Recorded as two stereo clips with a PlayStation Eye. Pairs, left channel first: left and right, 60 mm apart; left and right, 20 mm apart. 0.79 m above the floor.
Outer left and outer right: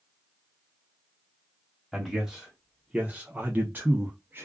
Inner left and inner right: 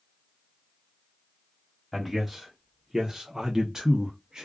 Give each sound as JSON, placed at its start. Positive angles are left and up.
{"t": 1.9, "sound": "a man speaking", "side_deg": 0, "distance_m": 1.0}